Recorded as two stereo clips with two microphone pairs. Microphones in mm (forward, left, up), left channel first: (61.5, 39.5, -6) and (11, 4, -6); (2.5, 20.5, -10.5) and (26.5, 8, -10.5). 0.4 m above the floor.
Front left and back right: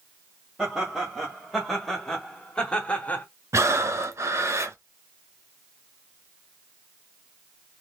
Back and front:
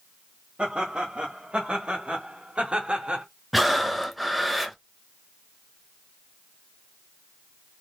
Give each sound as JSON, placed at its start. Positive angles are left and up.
{"t": 0.6, "sound": "laughter", "azimuth_deg": -70, "distance_m": 1.9}
{"t": 3.5, "sound": "breathing", "azimuth_deg": -115, "distance_m": 0.8}